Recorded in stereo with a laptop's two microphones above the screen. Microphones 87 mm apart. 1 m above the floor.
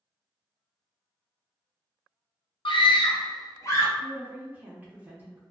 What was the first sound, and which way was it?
A scream, 75° left (ahead or behind).